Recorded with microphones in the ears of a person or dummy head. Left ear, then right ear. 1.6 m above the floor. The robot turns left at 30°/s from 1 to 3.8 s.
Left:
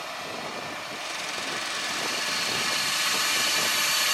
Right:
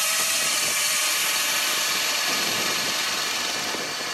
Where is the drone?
125° right; by 4.1 s 150° left.